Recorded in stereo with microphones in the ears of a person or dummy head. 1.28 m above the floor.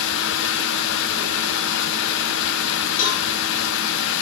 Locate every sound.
0.0 s running water: 80° left, 0.9 m
3.0 s a cowbell: 50° left (ahead or behind), 2.5 m